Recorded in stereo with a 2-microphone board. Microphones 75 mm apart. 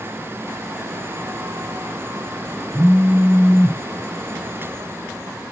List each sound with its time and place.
2.7 s a phone buzzing: 40° right (ahead or behind), 1.3 m